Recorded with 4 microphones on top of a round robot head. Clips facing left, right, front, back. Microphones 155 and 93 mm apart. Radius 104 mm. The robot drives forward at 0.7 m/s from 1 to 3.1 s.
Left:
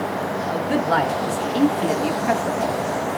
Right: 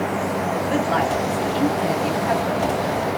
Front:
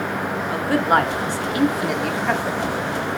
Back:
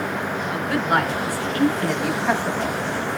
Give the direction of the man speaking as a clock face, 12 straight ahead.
10 o'clock.